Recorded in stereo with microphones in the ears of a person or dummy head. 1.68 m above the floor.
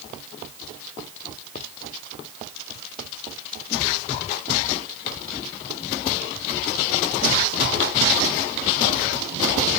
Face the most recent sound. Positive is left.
No sound to turn to.